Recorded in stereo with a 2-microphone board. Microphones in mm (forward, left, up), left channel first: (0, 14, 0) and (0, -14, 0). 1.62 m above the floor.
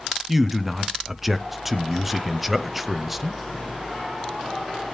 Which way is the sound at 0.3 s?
5° right (ahead or behind).